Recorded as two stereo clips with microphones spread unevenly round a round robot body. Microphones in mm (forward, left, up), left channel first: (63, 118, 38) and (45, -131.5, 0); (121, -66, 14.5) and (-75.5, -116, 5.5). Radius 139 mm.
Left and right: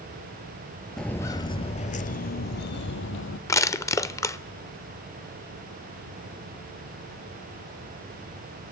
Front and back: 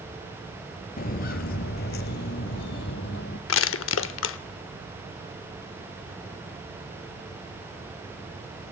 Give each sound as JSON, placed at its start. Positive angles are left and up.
{"t": 1.0, "sound": "footsteps", "azimuth_deg": 10, "distance_m": 0.9}
{"t": 3.5, "sound": "crushing", "azimuth_deg": 10, "distance_m": 0.8}